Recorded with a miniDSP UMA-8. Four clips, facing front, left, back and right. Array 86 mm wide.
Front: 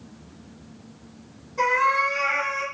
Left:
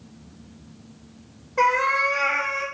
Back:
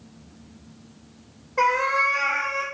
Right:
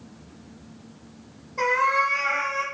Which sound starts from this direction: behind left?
A cat meowing, at 1.6 s.